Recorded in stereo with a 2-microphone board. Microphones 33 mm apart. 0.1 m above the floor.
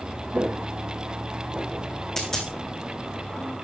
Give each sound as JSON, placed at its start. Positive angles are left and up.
{"t": 0.3, "sound": "footsteps", "side_deg": -50, "distance_m": 2.0}
{"t": 2.2, "sound": "a dropped coin", "side_deg": 20, "distance_m": 2.5}